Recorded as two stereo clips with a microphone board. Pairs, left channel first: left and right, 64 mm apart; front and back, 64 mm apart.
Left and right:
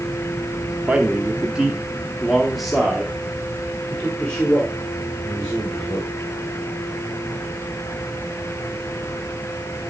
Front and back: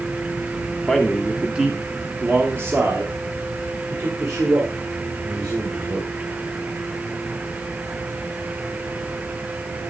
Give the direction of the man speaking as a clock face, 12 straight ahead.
2 o'clock.